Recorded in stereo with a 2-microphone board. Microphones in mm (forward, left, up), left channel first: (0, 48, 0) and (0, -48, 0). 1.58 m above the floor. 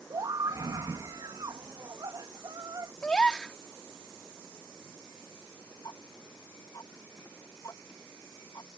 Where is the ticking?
40° left (ahead or behind).